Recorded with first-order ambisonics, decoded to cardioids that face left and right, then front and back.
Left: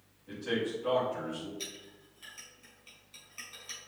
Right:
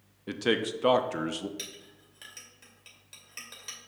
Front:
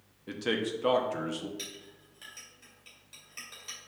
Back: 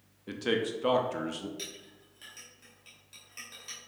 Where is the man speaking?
90° right, 0.6 m.